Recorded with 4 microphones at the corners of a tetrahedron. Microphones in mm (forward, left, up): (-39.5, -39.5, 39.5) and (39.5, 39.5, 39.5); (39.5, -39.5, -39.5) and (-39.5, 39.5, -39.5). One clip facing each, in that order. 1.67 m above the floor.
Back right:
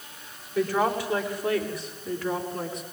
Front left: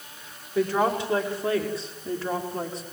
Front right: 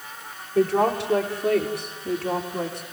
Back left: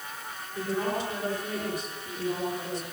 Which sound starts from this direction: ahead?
A woman speaking, at 0.6 s.